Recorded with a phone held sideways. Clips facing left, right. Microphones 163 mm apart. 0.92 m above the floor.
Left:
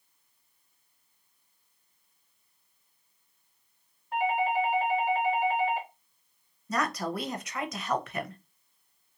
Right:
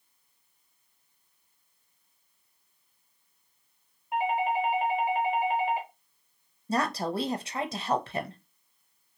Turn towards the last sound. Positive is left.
turn(degrees=-30)  # may be behind; listen again after turning